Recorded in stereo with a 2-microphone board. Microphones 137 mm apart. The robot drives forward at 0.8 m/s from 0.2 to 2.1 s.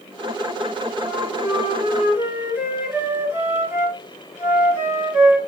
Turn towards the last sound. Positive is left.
turn(degrees=-15)  # may be behind; listen again after turning